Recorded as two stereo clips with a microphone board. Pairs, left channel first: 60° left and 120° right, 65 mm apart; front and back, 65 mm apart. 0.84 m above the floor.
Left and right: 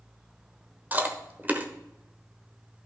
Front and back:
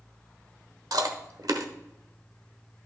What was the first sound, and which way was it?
Chewing, straight behind.